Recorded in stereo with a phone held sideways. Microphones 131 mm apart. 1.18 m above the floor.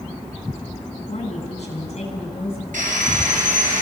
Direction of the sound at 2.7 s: 80° right.